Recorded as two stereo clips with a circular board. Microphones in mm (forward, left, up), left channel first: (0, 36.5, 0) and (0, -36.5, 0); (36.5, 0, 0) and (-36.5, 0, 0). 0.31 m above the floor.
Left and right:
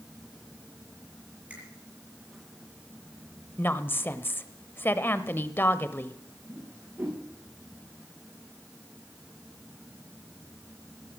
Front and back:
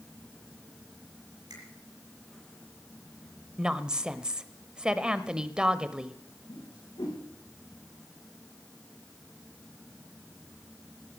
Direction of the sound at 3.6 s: 110° left.